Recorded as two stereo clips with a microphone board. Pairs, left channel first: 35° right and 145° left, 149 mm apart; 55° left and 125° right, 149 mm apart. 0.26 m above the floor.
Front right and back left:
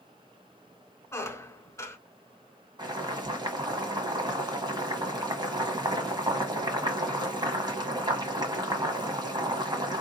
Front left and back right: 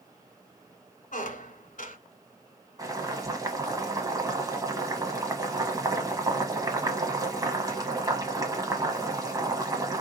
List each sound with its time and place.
1.1 s a squeak: 35° left, 0.8 m
2.8 s boiling: 175° right, 1.1 m